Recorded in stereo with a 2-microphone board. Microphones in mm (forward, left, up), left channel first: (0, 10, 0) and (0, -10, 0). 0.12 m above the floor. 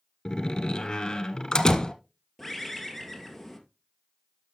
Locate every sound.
0.2 s a door slam: 40° left (ahead or behind), 1.4 m
2.4 s a bird: centre (ahead or behind), 2 m